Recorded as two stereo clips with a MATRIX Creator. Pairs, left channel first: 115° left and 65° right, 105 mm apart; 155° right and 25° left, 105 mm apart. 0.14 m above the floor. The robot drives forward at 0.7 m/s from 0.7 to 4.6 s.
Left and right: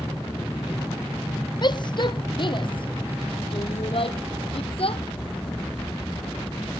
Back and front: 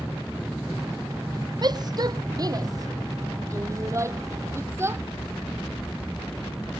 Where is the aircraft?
130° left; by 6.8 s 145° left.